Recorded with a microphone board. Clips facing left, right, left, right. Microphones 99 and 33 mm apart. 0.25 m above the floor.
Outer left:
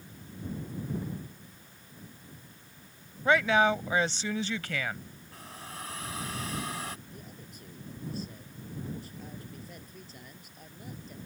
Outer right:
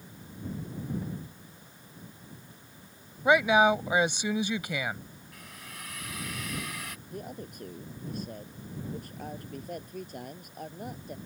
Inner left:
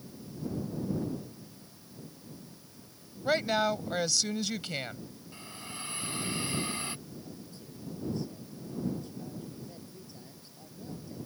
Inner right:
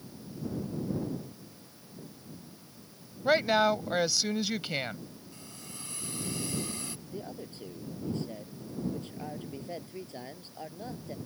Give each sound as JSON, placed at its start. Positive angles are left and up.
{"t": 3.2, "sound": "a woman speaking", "side_deg": -15}
{"t": 5.3, "sound": "a hiss", "side_deg": 35}
{"t": 7.1, "sound": "a man speaking", "side_deg": -55}